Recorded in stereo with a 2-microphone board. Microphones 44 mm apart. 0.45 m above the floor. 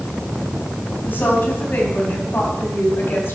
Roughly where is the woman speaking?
Left.